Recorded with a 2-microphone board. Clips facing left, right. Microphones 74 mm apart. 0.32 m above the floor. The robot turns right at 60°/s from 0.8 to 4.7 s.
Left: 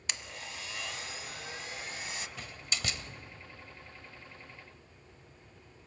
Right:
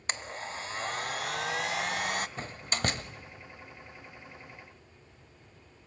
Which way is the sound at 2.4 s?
35° right (ahead or behind).